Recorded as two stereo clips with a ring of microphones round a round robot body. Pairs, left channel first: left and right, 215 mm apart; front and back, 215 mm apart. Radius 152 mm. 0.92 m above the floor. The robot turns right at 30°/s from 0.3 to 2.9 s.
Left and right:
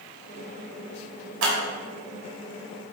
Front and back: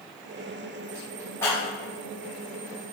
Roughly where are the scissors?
Right.